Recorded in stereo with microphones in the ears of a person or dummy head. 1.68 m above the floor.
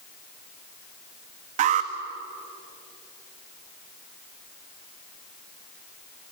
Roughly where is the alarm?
Right.